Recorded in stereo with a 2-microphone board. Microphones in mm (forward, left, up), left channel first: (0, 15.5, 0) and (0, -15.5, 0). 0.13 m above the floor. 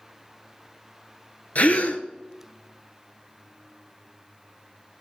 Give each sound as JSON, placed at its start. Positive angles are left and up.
{"t": 1.6, "sound": "a gasp", "side_deg": 60, "distance_m": 0.6}